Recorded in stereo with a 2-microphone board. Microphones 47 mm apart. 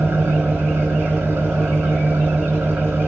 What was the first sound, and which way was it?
An engine running, 70° right (ahead or behind).